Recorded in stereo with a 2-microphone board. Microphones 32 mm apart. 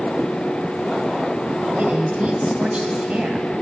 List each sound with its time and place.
1.8 s a woman speaking: 40° right (ahead or behind), 2.5 m